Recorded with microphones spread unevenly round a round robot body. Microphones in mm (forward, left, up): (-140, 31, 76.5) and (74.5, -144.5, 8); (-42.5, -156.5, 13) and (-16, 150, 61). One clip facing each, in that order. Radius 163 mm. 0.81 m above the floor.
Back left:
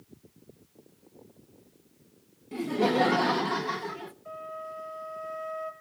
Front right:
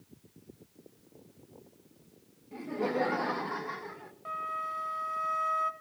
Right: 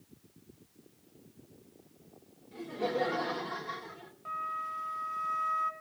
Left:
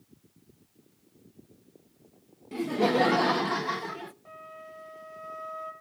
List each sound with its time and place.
2.5 s laughter: 95° left, 0.7 m
4.2 s a flute: 30° right, 1.7 m